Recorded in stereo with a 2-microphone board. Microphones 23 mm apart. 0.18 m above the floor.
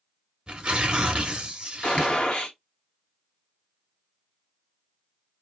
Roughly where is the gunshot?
Left.